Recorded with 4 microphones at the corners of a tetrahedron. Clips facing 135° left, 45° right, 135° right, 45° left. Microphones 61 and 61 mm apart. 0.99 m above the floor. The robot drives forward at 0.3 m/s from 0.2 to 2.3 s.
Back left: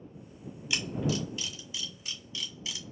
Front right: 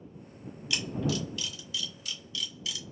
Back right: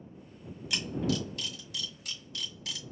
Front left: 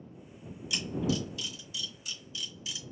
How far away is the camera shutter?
About 1.7 m.